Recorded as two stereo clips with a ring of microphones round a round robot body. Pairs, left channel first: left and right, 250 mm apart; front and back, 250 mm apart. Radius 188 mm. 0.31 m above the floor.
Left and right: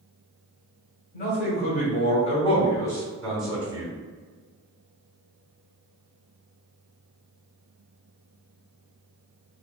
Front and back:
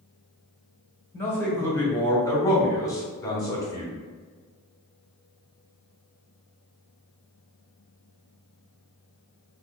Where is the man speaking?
80° left, 1.9 m; by 3.9 s 45° right, 1.5 m.